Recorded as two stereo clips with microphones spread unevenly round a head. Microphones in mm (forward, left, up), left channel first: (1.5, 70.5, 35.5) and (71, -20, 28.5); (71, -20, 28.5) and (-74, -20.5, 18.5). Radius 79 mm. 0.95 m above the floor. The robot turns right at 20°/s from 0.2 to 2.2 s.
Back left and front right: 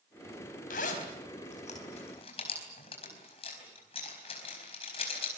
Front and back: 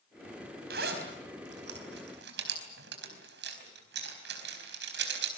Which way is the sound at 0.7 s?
150° left.